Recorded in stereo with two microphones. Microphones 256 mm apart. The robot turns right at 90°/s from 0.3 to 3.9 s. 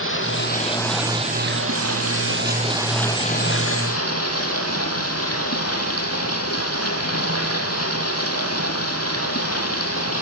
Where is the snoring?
I don't hear snoring.